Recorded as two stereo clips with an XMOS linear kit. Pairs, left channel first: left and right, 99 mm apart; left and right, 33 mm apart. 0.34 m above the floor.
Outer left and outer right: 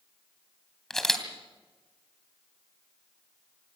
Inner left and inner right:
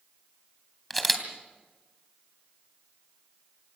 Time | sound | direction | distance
0.9 | a camera shutter | 5° left (ahead or behind) | 2.5 m